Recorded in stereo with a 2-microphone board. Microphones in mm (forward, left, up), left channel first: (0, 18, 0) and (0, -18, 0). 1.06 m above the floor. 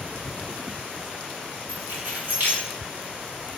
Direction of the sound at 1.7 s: 60° right (ahead or behind).